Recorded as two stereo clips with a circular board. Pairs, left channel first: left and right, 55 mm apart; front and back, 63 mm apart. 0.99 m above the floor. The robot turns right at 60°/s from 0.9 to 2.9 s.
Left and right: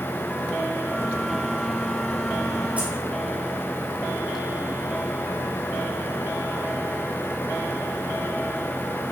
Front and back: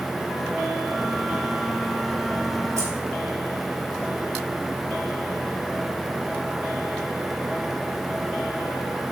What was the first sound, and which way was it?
Keys jangling, 150° right.